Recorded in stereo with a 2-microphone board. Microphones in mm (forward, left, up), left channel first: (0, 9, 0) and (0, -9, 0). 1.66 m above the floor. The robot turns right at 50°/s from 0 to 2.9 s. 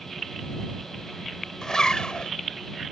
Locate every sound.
1.6 s a zipper: 55° left; by 2.3 s 90° left